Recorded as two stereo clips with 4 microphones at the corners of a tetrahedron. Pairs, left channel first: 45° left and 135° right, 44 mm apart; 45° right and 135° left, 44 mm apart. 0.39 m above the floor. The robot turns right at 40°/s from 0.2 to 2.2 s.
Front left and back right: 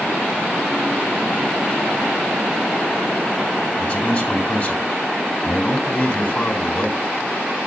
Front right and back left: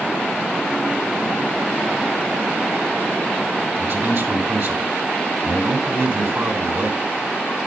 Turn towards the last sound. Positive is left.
turn(degrees=115)